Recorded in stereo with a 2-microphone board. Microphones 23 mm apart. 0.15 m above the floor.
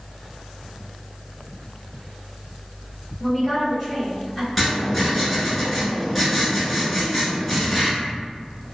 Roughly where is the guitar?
No guitar in this recording.